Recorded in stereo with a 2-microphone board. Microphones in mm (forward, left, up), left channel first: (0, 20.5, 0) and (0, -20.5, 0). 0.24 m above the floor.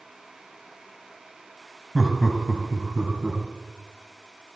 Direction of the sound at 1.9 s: 5° right (ahead or behind).